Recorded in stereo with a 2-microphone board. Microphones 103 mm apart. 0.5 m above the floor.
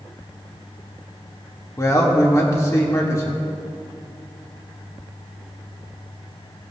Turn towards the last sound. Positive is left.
turn(degrees=30)  # may be behind; listen again after turning